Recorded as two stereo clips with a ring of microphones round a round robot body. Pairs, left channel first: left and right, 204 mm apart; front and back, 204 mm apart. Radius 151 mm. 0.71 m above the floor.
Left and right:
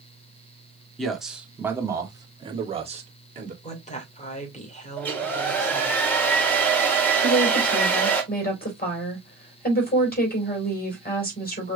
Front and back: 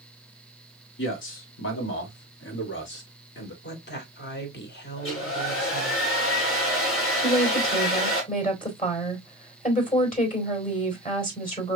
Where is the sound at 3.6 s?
35° left, 2 m.